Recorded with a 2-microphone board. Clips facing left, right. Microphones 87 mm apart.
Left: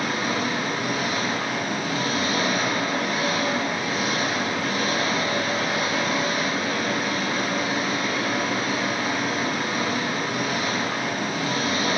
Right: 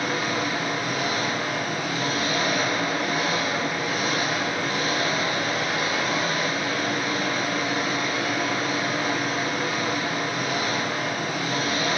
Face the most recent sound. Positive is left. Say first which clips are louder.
# left 1 dB
turn(degrees=80)